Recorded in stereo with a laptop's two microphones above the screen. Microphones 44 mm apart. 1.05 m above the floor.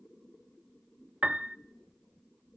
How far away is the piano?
About 0.7 m.